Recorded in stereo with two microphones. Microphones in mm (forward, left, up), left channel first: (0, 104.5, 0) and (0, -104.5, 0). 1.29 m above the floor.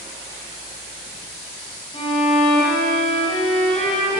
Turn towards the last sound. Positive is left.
turn(degrees=25)  # may be behind; listen again after turning